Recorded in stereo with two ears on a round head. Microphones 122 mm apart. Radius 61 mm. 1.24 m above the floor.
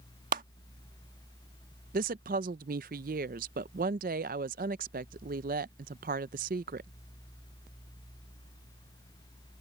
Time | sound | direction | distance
0.3 | a clap | 70° right (ahead or behind) | ?
1.9 | a woman speaking | 70° right (ahead or behind) | ?